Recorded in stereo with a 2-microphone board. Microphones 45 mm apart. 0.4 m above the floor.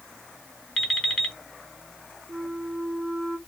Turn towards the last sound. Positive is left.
turn(degrees=-25)  # may be behind; listen again after turning